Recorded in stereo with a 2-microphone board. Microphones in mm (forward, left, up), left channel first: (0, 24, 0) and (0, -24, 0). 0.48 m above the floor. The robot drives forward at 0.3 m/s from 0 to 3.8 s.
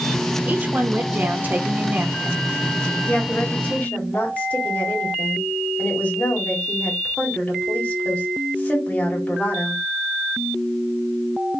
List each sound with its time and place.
0.5 s a woman speaking: 35° right (ahead or behind), 1.1 m; by 2.4 s 40° right (ahead or behind), 1.1 m
3.1 s a woman speaking: 35° left (ahead or behind), 2.0 m; by 9.8 s 30° left (ahead or behind), 2 m